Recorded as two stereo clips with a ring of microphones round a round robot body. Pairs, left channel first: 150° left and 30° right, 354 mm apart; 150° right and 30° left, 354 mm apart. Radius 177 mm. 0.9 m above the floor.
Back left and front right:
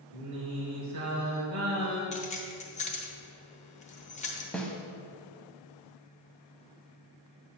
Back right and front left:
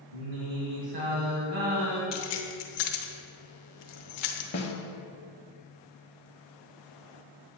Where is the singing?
25° left, 2 m.